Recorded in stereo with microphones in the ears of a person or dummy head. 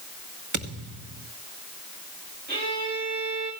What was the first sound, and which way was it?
A thud, 45° right (ahead or behind).